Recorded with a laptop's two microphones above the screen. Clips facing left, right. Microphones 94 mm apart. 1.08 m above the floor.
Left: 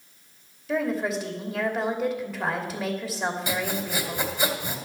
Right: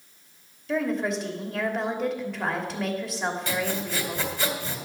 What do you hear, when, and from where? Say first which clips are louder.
0.7 s a woman speaking: even; centre (ahead or behind), 2.5 m
3.5 s sawing: even; 15° left (ahead or behind), 2.5 m